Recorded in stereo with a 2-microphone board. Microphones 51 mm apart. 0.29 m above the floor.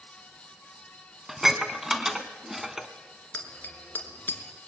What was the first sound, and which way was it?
Dishes clattering, 10° right (ahead or behind).